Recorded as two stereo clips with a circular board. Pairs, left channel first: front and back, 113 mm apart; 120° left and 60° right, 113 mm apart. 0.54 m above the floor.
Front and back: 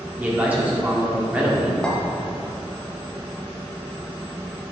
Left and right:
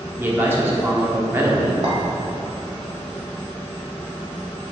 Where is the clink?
80° right, 1.4 m.